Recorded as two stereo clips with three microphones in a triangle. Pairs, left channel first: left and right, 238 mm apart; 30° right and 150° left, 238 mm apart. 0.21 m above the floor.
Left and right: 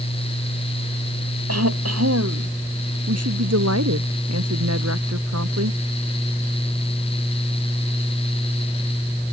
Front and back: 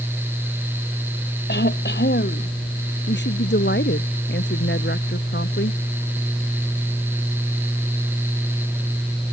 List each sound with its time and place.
1.5 s throat clearing: 80° right
3.1 s a woman speaking: 75° right